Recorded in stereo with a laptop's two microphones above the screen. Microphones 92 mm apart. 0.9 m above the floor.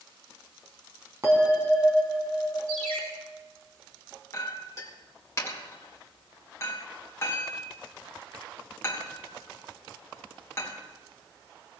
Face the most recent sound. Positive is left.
turn(degrees=35)  # may be behind; listen again after turning